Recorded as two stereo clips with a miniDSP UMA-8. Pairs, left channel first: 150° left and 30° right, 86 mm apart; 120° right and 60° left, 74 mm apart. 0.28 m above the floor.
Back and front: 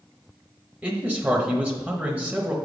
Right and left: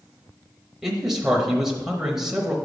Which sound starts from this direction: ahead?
A man speaking, at 0.8 s.